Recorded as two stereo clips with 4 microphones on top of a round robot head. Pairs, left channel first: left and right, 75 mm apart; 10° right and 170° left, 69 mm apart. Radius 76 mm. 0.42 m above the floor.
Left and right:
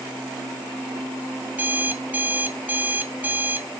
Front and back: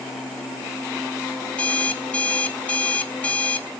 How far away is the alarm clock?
About 0.6 m.